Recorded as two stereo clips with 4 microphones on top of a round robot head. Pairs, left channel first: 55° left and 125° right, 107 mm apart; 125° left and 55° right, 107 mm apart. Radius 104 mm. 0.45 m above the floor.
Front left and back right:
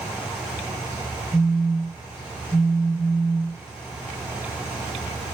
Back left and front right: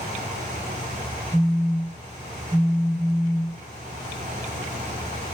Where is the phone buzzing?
Straight ahead, 0.8 m.